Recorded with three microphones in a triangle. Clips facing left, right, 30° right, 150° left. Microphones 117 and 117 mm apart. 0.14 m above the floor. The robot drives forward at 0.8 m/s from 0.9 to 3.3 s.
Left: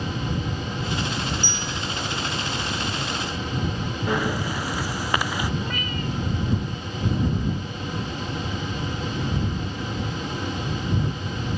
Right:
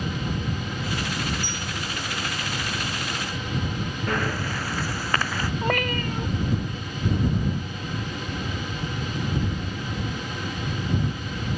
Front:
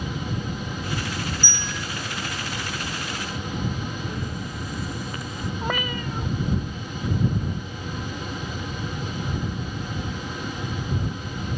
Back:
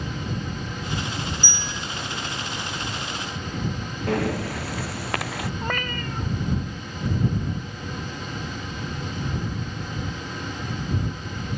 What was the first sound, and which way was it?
A bell, 75° left.